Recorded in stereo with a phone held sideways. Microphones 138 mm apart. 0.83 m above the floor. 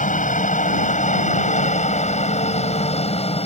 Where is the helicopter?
65° left (ahead or behind); by 3.5 s 45° left (ahead or behind).